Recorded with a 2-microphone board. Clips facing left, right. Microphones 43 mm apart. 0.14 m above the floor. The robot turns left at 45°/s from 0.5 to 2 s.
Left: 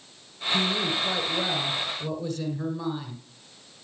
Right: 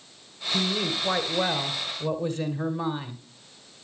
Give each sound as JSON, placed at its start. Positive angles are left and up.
{"t": 0.5, "sound": "a woman speaking", "side_deg": -20, "distance_m": 1.4}